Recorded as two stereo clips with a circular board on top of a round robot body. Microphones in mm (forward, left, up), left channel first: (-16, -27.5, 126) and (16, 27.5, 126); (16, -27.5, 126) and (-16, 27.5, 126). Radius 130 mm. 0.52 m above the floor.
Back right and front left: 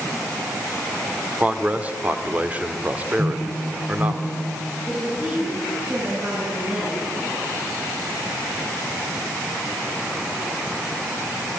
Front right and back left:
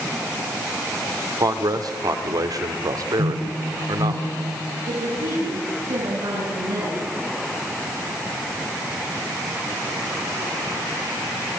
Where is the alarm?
105° left, 4.5 m.